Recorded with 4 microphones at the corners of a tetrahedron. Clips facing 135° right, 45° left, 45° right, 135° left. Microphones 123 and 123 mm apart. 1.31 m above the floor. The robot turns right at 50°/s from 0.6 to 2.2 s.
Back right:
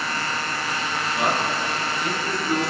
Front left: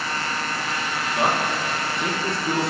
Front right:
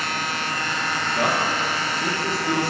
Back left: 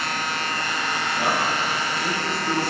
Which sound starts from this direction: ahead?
A man speaking, at 1.1 s.